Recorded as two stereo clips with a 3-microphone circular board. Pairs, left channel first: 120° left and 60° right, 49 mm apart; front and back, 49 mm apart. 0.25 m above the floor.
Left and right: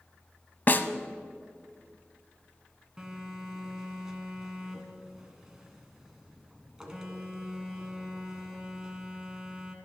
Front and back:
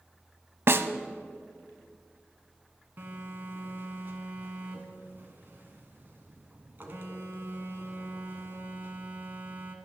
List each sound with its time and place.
0.7 s a snare drum: 160° left, 0.6 m
3.0 s a phone buzzing: 140° right, 1.5 m